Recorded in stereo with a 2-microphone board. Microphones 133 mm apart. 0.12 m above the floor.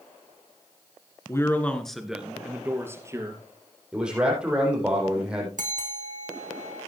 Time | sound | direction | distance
1.3 | a man speaking | 20° left (ahead or behind) | 1.4 m
3.9 | a man speaking | 5° right (ahead or behind) | 5.5 m
5.6 | a bell | 75° right (ahead or behind) | 1.8 m